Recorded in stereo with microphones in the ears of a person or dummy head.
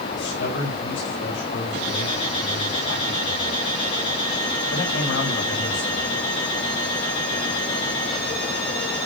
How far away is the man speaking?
About 5.5 m.